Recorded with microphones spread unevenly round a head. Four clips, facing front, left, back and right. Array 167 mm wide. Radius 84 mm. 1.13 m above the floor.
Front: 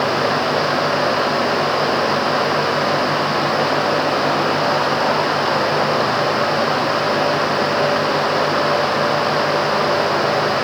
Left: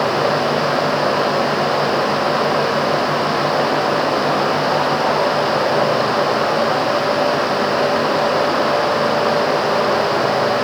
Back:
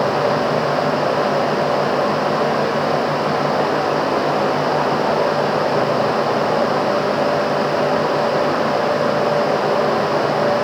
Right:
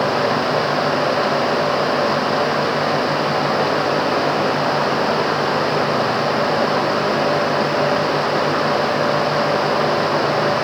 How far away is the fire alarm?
No fire alarm in this recording.